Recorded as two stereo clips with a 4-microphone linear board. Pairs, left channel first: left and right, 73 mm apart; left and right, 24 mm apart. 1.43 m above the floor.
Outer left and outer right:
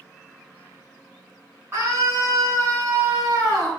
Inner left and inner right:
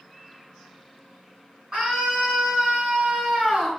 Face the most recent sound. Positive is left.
turn(degrees=-20)  # may be behind; listen again after turning